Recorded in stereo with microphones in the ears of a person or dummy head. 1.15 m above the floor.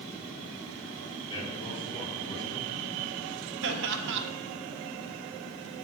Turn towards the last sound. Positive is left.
turn(degrees=-70)  # may be behind; listen again after turning